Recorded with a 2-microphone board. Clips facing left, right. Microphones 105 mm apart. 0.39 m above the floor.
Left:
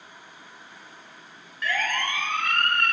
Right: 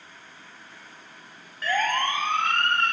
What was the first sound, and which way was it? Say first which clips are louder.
A siren: right 3 dB; 35° right (ahead or behind).